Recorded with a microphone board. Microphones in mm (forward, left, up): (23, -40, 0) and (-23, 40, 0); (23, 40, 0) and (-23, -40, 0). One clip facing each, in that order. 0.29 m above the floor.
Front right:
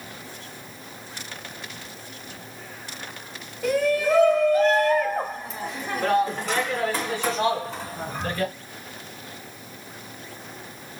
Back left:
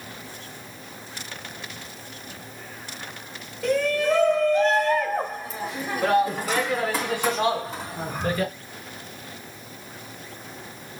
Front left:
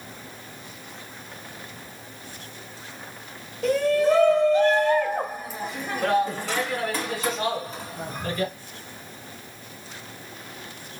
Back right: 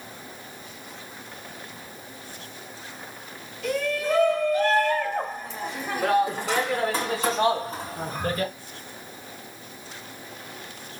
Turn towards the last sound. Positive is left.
turn(degrees=-165)